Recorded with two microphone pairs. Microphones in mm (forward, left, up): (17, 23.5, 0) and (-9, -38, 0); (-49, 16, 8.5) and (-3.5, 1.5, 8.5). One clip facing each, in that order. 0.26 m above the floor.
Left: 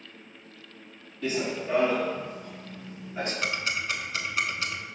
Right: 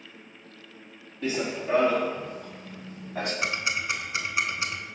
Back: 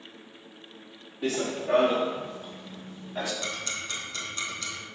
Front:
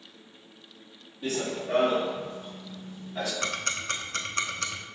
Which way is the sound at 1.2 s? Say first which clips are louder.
Even, back 2 dB; straight behind.